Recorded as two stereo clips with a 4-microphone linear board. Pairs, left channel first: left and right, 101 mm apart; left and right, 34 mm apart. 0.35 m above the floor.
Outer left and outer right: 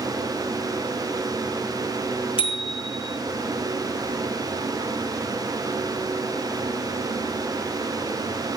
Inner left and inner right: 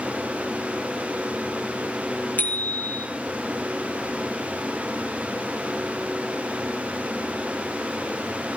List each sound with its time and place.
2.4 s a bicycle bell: 60° left (ahead or behind), 2.5 m